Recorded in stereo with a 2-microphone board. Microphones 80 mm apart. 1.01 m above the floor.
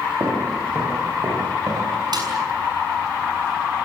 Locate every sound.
0.2 s footsteps: 40° right (ahead or behind), 9 m; by 1.9 s 45° right (ahead or behind), 9.5 m
2.1 s a snare drum: 60° right (ahead or behind), 6.5 m